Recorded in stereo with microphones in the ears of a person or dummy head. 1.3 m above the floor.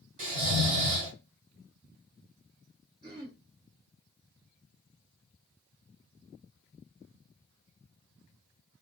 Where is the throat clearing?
25° right (ahead or behind), 1.4 m.